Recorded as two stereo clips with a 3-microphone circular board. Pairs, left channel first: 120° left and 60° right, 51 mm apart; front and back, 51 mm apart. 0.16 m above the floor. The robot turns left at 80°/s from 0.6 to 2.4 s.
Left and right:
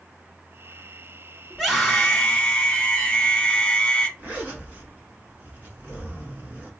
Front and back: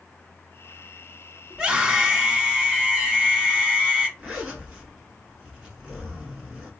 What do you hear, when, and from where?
1.5 s a scream: 120° right, 1.4 m; by 4.1 s 170° left, 1.4 m
4.2 s a zipper: 110° right, 1.5 m